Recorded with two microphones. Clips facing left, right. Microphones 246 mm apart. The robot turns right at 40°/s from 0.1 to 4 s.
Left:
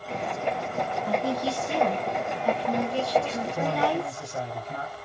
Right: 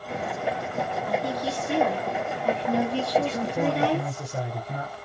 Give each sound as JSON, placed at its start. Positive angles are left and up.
{"t": 1.1, "sound": "a woman speaking", "azimuth_deg": 120, "distance_m": 1.3}
{"t": 3.2, "sound": "a man speaking", "azimuth_deg": -140, "distance_m": 1.7}